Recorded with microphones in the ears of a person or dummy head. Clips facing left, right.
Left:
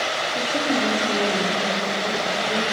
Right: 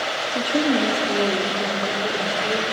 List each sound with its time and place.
0.3 s a woman speaking: 25° right (ahead or behind), 2.5 m; by 2.6 s 45° right (ahead or behind), 4 m